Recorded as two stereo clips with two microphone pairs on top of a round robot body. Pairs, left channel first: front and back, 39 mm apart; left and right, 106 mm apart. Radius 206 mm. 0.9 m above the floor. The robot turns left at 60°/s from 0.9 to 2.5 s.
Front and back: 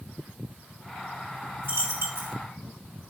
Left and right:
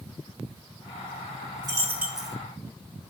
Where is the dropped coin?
140° right, 3 m; by 2.4 s 175° left, 3 m.